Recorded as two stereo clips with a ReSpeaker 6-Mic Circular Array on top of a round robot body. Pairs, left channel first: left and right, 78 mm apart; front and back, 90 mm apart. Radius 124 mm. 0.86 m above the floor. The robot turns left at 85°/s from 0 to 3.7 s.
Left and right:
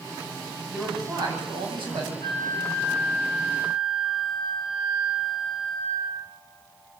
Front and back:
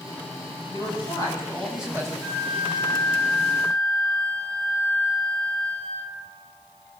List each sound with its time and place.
0.7 s a man speaking: 5° right, 7.5 m; by 2.1 s 125° right, 7.5 m
2.2 s a flute: 70° right, 8 m; by 6.2 s 160° left, 8 m